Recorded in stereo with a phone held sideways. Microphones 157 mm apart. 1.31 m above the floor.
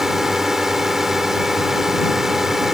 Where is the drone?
5° right (ahead or behind).